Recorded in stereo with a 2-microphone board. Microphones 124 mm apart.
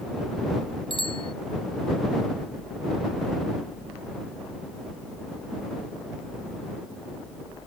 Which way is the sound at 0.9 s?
50° left (ahead or behind).